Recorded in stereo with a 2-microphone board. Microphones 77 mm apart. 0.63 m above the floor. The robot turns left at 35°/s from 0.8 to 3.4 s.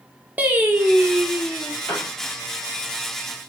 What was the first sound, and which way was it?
Singing, 155° right.